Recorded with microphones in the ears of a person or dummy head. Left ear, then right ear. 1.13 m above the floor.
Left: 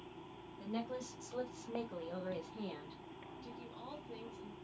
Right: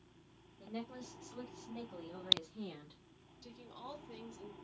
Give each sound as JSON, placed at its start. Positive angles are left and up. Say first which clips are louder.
{"t": 0.6, "sound": "a woman speaking", "louder": "left 4 dB", "side_deg": 85, "distance_m": 1.4}
{"t": 3.4, "sound": "a woman speaking", "louder": "right 2 dB", "side_deg": -25, "distance_m": 0.7}